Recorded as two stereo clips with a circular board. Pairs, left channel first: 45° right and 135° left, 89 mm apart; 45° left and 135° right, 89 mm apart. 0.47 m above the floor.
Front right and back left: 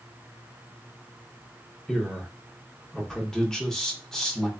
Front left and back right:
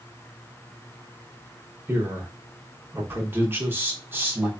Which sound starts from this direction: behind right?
A man speaking, at 1.9 s.